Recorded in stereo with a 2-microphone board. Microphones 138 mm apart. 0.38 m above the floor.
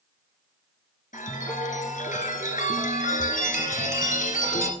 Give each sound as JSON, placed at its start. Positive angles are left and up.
{"t": 1.1, "sound": "a chime", "side_deg": 70, "distance_m": 1.8}